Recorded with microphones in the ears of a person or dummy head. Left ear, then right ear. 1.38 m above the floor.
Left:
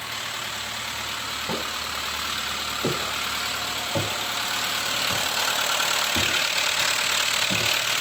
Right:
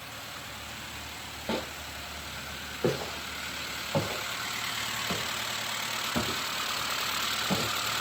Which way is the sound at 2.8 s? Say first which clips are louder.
Left 2 dB; 50° right (ahead or behind).